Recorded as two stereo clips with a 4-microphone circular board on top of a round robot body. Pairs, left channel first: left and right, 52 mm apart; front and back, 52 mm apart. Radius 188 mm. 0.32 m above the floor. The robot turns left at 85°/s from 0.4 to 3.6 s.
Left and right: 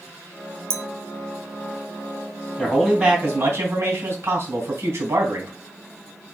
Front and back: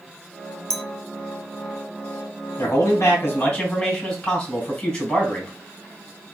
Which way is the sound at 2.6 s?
10° left.